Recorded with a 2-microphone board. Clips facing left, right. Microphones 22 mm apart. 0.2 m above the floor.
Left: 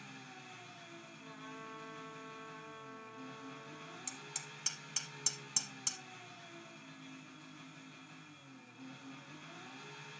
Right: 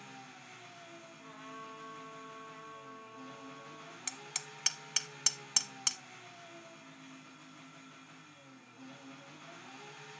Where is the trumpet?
60° right (ahead or behind), 3.5 m.